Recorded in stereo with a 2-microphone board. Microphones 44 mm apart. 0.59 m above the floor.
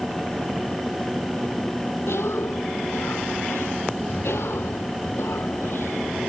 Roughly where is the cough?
Left.